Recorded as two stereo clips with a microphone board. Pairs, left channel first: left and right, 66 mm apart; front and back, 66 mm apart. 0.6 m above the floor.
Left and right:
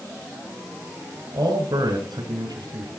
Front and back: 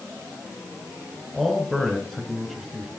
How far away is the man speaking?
About 4 m.